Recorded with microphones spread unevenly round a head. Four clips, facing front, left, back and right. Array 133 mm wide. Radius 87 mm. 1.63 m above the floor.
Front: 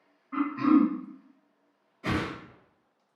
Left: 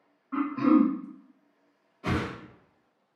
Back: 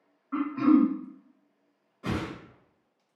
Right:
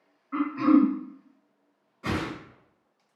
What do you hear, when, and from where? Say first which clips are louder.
0.3 s throat clearing: right 1 dB, back 1 dB; 160° left, 0.7 m
2.0 s a whoosh: even, front 2 dB; 155° right, 1.7 m